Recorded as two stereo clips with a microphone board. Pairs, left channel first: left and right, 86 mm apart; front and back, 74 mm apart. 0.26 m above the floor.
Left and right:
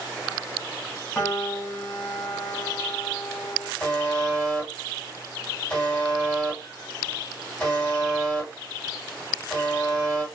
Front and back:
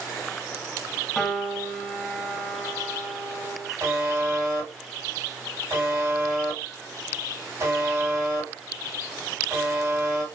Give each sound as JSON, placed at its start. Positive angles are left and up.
{"t": 1.1, "sound": "a piano", "azimuth_deg": 75, "distance_m": 1.5}
{"t": 3.8, "sound": "a buzzer", "azimuth_deg": 160, "distance_m": 1.8}